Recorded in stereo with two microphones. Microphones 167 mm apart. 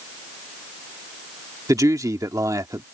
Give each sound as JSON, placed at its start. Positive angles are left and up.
{"t": 1.7, "sound": "a man speaking", "side_deg": -20}